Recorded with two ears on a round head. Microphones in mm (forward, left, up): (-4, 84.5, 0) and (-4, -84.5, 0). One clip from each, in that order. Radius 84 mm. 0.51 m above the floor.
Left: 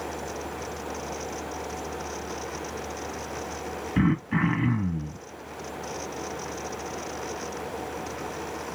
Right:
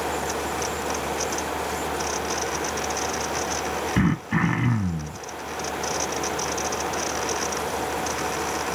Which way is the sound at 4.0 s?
10° right (ahead or behind).